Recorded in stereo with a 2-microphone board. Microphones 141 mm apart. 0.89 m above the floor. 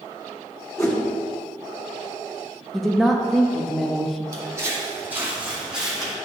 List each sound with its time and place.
0.8 s a whoosh: 20° left (ahead or behind), 1.3 m
2.7 s a woman speaking: centre (ahead or behind), 0.9 m
4.3 s footsteps: 25° right (ahead or behind), 2 m; by 6.2 s centre (ahead or behind), 2.5 m